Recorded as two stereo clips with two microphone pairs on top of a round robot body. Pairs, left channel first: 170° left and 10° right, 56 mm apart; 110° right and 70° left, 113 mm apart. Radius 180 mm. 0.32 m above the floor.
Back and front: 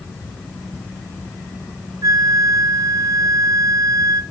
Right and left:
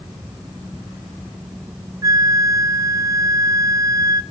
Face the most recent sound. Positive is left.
turn(degrees=10)